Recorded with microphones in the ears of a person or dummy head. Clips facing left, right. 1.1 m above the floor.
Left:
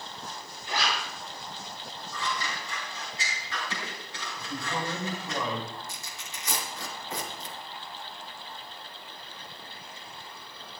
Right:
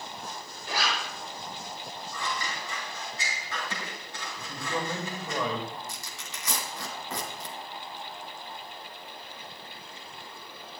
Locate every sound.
0.7 s a zipper: 40° right (ahead or behind), 6.5 m
2.1 s scissors: 50° right (ahead or behind), 4 m
4.4 s a man speaking: 75° right (ahead or behind), 5 m
5.9 s tearing paper: 60° right (ahead or behind), 3 m